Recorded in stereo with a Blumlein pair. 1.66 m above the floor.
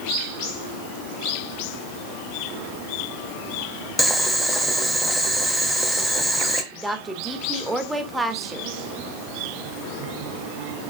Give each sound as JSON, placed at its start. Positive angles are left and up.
{"t": 4.0, "sound": "boiling", "azimuth_deg": -5, "distance_m": 1.6}
{"t": 6.7, "sound": "a woman speaking", "azimuth_deg": -10, "distance_m": 1.7}